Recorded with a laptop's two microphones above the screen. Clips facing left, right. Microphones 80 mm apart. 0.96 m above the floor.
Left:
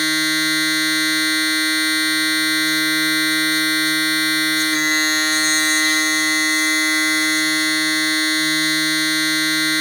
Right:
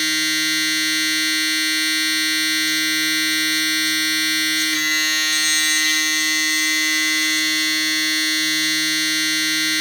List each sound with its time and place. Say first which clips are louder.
0.0 s a machine running: left 3 dB; 35° left (ahead or behind), 0.8 m